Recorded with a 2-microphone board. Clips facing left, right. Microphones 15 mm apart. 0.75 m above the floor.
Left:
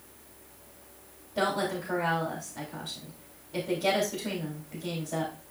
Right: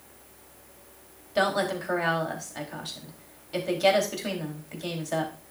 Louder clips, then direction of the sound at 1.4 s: Right 3 dB; 75° right (ahead or behind).